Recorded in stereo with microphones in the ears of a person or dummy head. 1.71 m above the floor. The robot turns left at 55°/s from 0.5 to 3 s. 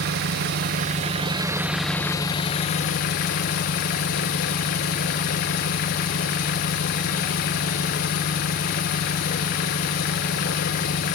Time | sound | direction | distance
0.0 | an engine running | 110° right | 0.8 m